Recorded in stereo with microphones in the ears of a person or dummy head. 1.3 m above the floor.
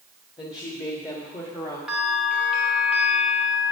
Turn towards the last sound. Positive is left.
turn(degrees=0)  # may be behind; listen again after turning